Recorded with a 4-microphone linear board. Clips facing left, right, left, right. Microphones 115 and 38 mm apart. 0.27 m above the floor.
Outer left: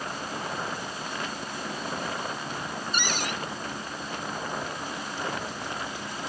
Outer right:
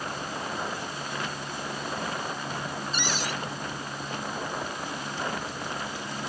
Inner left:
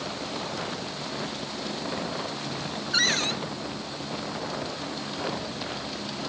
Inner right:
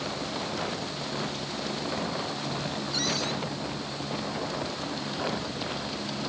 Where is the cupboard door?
60° left (ahead or behind).